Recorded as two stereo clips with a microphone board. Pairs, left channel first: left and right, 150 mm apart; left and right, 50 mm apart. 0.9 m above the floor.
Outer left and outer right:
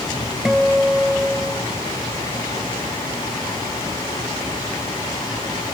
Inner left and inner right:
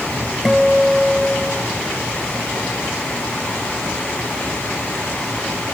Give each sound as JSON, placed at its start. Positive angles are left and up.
{"t": 0.5, "sound": "a guitar", "side_deg": 0}